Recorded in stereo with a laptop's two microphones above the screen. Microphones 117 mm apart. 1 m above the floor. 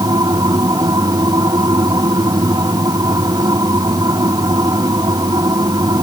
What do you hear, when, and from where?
0.0 s a machine running: 30° right (ahead or behind)